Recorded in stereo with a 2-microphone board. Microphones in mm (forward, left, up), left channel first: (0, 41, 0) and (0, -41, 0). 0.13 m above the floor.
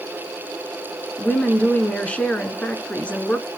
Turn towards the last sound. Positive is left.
turn(degrees=15)  # may be behind; listen again after turning